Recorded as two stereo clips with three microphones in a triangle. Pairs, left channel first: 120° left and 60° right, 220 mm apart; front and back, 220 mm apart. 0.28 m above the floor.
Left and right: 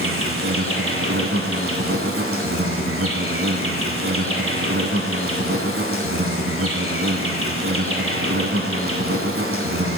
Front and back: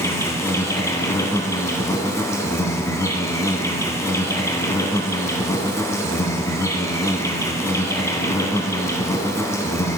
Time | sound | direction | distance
0.0 | an insect | 75° right | 1.0 m